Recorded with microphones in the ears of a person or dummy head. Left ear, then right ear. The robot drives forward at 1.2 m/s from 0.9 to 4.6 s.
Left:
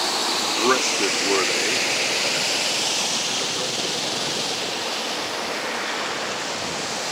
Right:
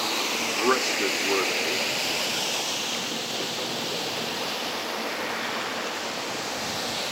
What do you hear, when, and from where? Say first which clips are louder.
0.6 s a man speaking: left 3 dB; centre (ahead or behind)